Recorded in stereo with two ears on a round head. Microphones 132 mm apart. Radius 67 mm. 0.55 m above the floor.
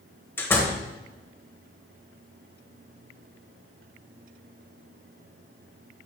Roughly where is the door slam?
Centre.